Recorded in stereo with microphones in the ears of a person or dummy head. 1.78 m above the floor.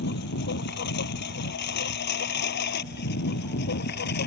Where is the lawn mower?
65° left (ahead or behind); by 4.3 s 60° left (ahead or behind).